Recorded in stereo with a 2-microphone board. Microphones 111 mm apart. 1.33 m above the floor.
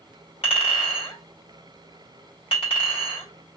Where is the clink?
60° left (ahead or behind), 2 m.